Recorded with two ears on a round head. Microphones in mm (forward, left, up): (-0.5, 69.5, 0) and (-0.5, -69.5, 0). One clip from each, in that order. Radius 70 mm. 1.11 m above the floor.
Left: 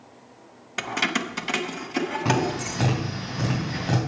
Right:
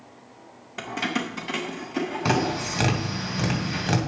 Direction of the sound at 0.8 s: 40° left (ahead or behind).